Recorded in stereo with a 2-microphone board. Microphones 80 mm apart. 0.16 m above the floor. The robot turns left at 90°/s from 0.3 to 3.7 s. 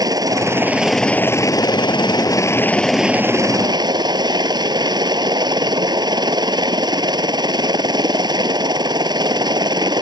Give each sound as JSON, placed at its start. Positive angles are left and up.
{"t": 0.0, "sound": "a helicopter", "azimuth_deg": -125}